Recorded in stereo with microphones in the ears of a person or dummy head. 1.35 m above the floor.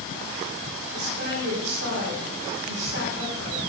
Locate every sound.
0.9 s a woman speaking: 60° right (ahead or behind), 3.5 m